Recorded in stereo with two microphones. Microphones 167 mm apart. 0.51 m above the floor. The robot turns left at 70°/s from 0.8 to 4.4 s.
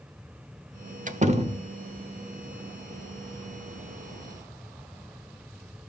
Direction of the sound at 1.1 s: 105° right.